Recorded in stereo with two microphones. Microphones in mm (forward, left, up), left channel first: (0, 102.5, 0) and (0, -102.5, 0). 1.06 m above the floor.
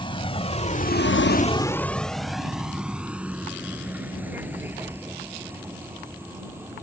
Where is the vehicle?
25° left (ahead or behind); by 6.8 s 10° right (ahead or behind).